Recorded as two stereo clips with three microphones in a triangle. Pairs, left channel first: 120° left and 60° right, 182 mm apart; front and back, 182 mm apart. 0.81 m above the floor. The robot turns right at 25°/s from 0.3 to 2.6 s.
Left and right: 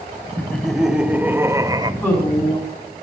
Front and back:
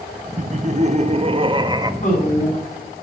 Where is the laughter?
160° right, 0.9 m; by 1.9 s 120° right, 0.9 m.